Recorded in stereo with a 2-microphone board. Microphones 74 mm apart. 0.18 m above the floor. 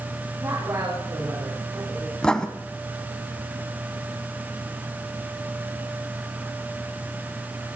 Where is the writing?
10° left (ahead or behind), 1.0 m.